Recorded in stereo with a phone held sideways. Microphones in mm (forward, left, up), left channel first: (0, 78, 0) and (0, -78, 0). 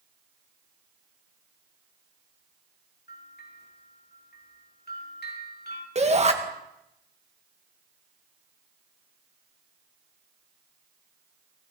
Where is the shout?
40° right (ahead or behind), 1.9 m.